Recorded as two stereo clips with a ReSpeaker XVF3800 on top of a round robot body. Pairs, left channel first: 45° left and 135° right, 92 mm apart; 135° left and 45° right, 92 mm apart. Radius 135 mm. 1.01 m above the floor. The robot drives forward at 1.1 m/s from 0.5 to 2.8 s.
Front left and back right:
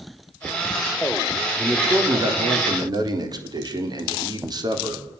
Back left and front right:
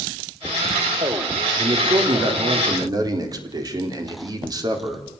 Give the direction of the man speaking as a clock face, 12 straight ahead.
2 o'clock.